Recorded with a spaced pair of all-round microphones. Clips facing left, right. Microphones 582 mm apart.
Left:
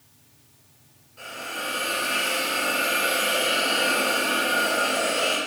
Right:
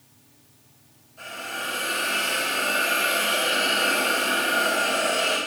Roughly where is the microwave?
I don't hear a microwave.